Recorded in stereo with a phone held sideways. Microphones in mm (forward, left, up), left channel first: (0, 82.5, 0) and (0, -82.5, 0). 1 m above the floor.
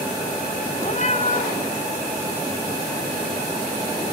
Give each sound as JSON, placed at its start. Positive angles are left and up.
{"t": 0.8, "sound": "a cat meowing", "side_deg": 45, "distance_m": 1.9}